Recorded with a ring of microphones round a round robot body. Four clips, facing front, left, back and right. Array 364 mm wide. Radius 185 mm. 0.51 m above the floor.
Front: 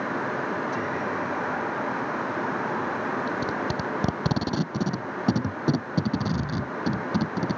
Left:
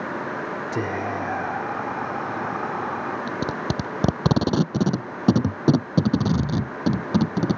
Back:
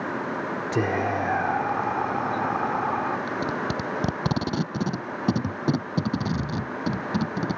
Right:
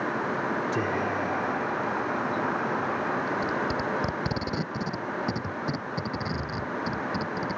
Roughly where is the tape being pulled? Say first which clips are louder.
Left 1 dB, even; left.